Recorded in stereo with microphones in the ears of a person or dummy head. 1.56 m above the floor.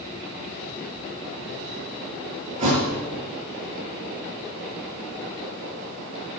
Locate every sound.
2.6 s a thud: 35° right (ahead or behind), 6 m